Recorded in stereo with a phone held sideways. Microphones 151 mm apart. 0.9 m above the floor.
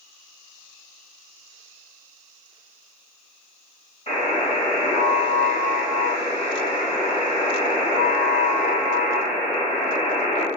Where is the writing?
I don't hear writing.